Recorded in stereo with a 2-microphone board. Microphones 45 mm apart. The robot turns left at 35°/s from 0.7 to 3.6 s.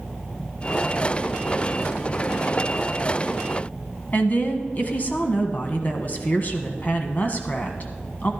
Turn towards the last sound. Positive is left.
turn(degrees=45)  # may be behind; listen again after turning